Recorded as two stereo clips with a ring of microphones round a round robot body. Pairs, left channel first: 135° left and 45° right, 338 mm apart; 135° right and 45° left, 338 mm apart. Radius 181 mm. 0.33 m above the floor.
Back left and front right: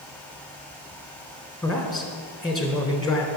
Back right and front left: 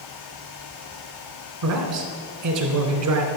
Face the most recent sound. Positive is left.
turn(degrees=45)